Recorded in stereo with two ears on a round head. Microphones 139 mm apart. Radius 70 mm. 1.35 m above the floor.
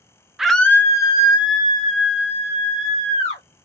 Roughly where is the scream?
Centre.